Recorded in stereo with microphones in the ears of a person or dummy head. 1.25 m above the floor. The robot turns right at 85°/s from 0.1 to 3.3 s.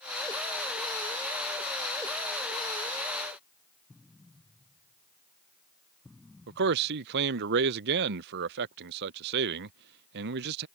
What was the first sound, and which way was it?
An explosion, centre (ahead or behind).